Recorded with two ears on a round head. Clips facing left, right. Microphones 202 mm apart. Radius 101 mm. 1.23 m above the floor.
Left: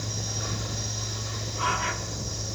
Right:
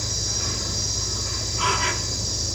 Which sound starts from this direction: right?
An insect, at 0.0 s.